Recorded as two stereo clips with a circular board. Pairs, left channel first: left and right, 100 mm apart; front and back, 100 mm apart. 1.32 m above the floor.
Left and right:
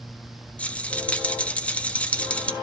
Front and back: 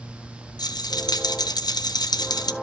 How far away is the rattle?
About 0.6 m.